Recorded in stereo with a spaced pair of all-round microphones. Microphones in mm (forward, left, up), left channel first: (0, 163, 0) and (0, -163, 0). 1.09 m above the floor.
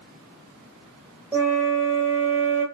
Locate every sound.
1.3 s a flute: 5° right (ahead or behind), 1.1 m